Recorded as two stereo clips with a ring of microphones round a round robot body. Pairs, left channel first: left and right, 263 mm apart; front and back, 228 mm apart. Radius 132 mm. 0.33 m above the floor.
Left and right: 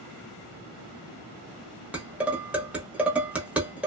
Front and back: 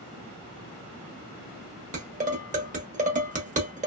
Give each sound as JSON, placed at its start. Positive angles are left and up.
{"t": 1.9, "sound": "dishes clattering", "azimuth_deg": -170, "distance_m": 0.7}